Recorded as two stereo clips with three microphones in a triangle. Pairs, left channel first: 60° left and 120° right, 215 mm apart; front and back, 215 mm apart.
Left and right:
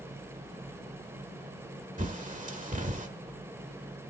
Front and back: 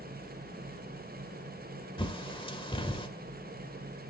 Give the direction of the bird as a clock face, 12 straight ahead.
2 o'clock.